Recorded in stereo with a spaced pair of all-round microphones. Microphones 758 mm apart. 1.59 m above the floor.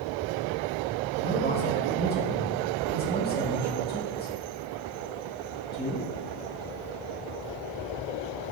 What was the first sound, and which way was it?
A man speaking, 10° left (ahead or behind).